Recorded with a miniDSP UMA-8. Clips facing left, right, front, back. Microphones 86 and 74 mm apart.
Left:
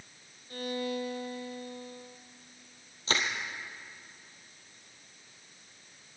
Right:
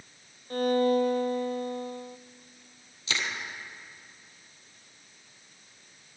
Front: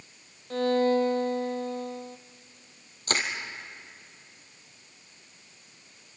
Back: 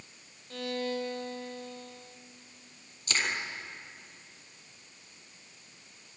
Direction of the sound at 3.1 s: 40° left.